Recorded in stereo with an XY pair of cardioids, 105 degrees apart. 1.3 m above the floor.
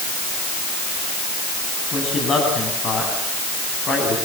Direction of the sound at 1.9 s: 50° left.